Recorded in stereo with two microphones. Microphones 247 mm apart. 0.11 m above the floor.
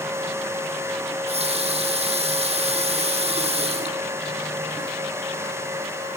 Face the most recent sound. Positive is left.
turn(degrees=-25)  # may be behind; listen again after turning